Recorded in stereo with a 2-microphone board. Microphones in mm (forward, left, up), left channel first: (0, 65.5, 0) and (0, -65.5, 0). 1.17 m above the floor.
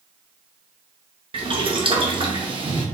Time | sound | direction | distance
1.3 | boiling | 40° right (ahead or behind) | 1.0 m